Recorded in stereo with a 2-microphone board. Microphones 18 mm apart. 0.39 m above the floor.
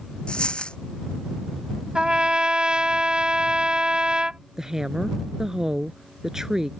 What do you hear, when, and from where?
0.3 s a dropped coin: 85° left
1.9 s a trumpet: 65° right (ahead or behind)
4.6 s a woman speaking: 30° right (ahead or behind)